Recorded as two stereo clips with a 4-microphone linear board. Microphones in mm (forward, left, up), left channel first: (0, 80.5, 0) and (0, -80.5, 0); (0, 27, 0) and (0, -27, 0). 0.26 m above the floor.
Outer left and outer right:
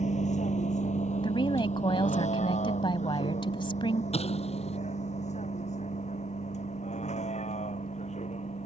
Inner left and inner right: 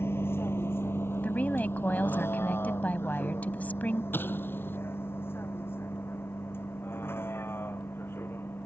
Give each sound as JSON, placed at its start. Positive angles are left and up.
{"t": 0.0, "sound": "a vehicle", "side_deg": 50}
{"t": 1.2, "sound": "a woman speaking", "side_deg": 35}
{"t": 4.1, "sound": "an explosion", "side_deg": 45}